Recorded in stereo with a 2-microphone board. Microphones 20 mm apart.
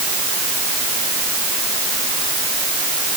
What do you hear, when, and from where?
Only background noise.